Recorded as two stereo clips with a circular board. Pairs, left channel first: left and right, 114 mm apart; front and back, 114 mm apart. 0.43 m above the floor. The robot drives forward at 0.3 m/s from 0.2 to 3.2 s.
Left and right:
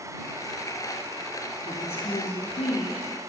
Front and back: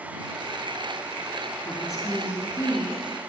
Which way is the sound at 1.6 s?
60° left.